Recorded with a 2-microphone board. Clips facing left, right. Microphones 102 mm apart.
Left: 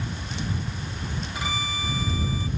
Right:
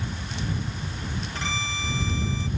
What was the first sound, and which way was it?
A violin, 10° left (ahead or behind).